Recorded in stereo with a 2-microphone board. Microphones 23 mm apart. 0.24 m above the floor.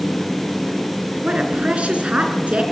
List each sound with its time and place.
1.2 s a woman speaking: 65° right (ahead or behind), 3.5 m